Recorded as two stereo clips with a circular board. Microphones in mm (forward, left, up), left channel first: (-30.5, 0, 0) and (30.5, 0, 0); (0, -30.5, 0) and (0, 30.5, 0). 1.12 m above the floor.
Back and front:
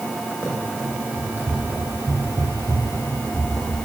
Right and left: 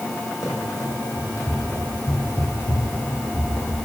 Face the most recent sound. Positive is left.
turn(degrees=-15)